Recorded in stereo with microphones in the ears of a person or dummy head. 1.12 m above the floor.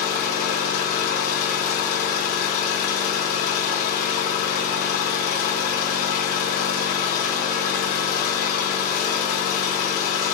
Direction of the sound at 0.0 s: 55° left (ahead or behind).